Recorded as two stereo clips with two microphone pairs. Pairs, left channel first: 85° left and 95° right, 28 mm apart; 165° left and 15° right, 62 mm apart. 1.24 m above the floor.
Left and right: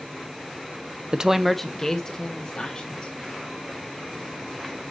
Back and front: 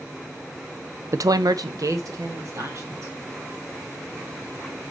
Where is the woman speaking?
45° right, 0.5 m; by 3.1 s 30° left, 2.5 m.